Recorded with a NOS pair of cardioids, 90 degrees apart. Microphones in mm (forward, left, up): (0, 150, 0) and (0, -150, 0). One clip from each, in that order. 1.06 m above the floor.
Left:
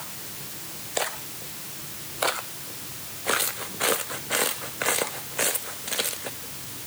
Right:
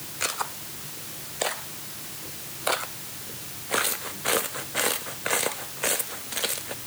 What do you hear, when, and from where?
Only background noise.